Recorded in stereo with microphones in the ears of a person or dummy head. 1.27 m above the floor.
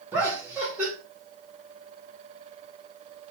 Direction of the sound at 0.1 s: 10° right (ahead or behind).